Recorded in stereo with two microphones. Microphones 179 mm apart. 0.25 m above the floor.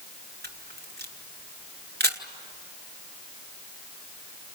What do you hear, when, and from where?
0.4 s a camera shutter: 65° right (ahead or behind), 1.7 m